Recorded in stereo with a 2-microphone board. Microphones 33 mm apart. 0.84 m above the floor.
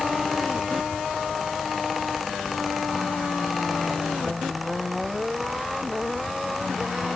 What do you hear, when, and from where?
Only background noise.